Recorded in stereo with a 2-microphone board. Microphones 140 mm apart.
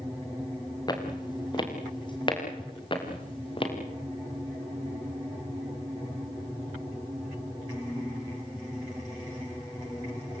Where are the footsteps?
30° left (ahead or behind), 6.5 m; by 3.7 s 40° left (ahead or behind), 7.5 m.